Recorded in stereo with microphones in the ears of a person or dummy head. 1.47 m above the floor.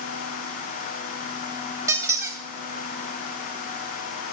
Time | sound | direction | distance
1.9 | a squeak | 15° right (ahead or behind) | 0.8 m